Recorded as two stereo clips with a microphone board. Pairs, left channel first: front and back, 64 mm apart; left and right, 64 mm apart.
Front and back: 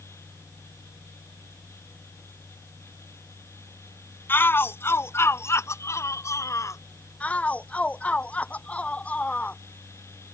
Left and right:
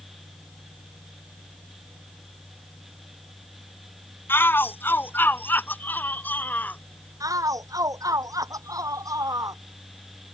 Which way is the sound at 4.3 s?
45° left.